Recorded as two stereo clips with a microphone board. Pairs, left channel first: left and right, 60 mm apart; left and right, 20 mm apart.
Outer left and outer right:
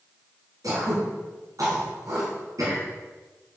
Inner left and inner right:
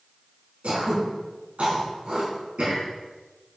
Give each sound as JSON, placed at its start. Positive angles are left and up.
{"t": 0.6, "sound": "throat clearing", "side_deg": -75, "distance_m": 3.5}